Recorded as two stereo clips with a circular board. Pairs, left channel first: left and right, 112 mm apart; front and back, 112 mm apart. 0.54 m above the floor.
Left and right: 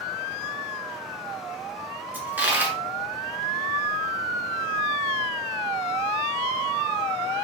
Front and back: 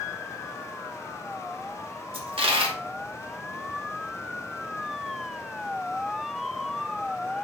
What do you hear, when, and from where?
2.1 s a dropped coin: 160° right, 0.8 m